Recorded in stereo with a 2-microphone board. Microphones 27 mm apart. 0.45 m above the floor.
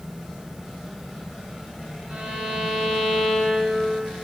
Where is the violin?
45° right (ahead or behind), 1.8 m.